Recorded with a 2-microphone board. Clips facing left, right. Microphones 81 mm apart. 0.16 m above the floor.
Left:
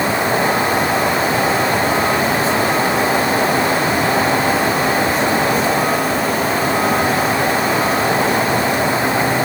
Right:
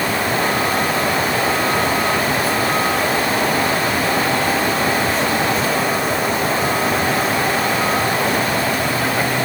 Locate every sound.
Only background noise.